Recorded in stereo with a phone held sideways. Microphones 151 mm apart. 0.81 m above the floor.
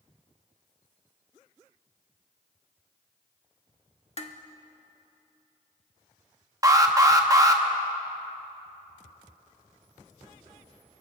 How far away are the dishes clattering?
About 0.9 m.